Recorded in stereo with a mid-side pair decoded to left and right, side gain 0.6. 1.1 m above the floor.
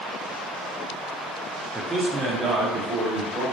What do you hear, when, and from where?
1.8 s a man speaking: 10° right, 0.5 m; by 3.4 s 65° right, 1.3 m